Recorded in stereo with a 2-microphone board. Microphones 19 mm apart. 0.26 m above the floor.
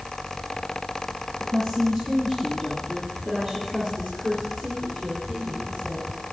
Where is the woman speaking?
15° left (ahead or behind), 4 m; by 6.3 s 40° right (ahead or behind), 5 m.